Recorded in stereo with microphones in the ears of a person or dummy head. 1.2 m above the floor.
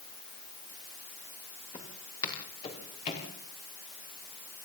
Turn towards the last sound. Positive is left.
turn(degrees=35)  # may be behind; listen again after turning